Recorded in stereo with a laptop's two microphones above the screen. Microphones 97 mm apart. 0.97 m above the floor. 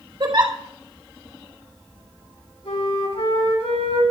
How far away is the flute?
About 6.5 m.